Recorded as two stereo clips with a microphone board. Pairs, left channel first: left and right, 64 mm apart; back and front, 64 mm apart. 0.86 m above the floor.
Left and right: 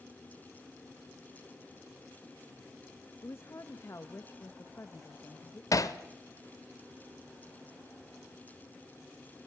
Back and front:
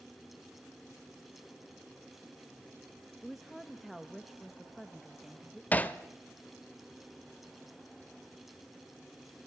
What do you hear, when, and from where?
3.2 s a woman speaking: 85° left, 1.1 m
5.7 s hammering: 115° left, 1.2 m